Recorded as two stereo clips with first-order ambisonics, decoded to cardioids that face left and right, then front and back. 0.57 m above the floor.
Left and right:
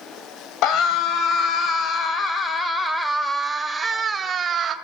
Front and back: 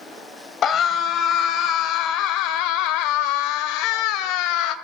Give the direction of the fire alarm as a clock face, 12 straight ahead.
I don't hear a fire alarm.